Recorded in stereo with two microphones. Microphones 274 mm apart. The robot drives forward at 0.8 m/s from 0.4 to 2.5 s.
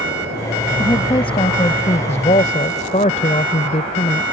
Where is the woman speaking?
20° left (ahead or behind); by 4.2 s 30° left (ahead or behind).